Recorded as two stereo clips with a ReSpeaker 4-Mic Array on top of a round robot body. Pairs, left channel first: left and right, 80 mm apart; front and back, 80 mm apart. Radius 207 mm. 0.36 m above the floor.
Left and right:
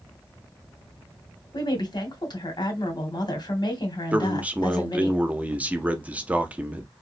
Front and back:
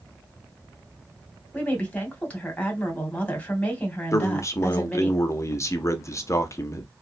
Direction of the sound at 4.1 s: 25° right.